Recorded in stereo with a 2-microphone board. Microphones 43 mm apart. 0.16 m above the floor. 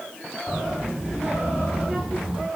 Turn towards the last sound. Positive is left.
turn(degrees=-5)  # may be behind; listen again after turning